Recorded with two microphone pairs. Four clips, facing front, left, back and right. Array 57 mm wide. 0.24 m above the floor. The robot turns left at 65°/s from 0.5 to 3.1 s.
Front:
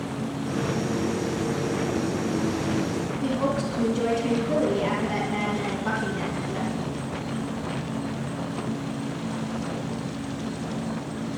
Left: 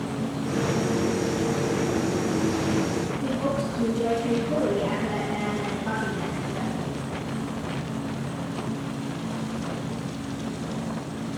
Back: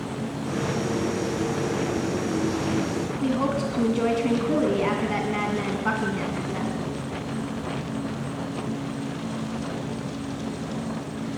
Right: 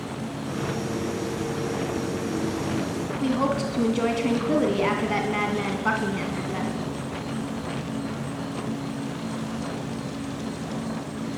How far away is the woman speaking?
About 2.5 m.